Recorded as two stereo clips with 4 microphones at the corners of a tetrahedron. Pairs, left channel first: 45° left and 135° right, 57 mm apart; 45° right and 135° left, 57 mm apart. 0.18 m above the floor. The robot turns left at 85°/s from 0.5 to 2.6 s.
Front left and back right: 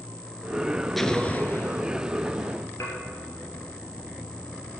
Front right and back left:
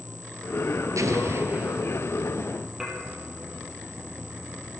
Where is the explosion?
130° left, 1.0 m; by 2.0 s 45° left, 1.0 m.